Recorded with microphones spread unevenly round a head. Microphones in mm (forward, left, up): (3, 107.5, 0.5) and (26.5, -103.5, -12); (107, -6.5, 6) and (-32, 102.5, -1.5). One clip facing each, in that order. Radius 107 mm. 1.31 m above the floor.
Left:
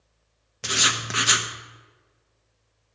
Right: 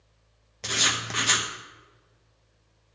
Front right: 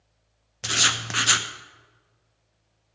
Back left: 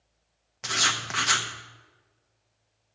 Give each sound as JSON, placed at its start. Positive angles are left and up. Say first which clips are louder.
{"t": 0.6, "sound": "writing", "louder": "left 2 dB, front right 2 dB", "azimuth_deg": 20, "distance_m": 0.8}